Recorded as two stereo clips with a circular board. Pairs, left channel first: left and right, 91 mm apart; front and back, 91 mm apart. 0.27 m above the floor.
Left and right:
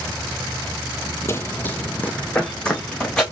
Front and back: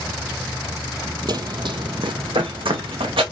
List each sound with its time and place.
1.3 s running footsteps: 145° left, 0.5 m; by 3.2 s 170° left, 1.4 m